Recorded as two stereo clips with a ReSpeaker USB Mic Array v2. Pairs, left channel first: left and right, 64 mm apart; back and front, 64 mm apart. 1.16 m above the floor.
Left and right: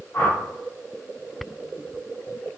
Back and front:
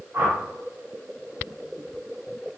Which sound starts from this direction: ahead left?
A whoosh, at 0.1 s.